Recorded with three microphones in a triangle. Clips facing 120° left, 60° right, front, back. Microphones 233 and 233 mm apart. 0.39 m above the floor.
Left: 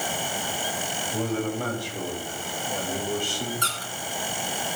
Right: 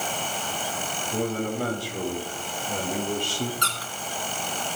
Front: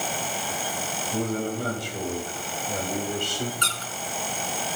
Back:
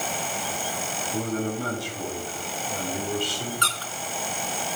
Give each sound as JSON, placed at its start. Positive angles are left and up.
{"t": 1.1, "sound": "a man speaking", "azimuth_deg": -25, "distance_m": 8.5}
{"t": 3.6, "sound": "a squeak", "azimuth_deg": -70, "distance_m": 2.5}